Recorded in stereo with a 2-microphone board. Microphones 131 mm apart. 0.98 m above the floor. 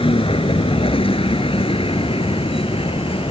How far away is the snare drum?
No snare drum in this recording.